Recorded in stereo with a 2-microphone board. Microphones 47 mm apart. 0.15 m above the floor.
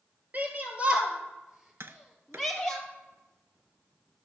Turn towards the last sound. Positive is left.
turn(degrees=-65)  # may be behind; listen again after turning